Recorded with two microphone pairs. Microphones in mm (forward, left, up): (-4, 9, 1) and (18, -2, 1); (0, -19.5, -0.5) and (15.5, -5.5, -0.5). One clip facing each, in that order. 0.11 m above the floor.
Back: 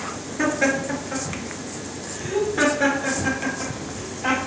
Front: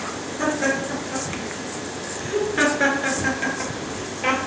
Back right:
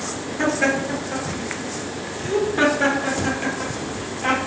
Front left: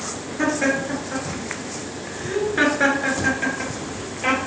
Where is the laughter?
125° left, 1.6 m; by 4.4 s 5° right, 2 m.